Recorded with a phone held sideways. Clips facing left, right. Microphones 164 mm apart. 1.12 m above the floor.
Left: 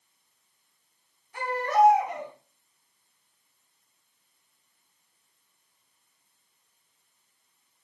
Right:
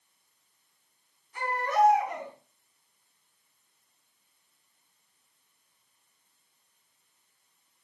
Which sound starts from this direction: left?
A baby crying, at 1.3 s.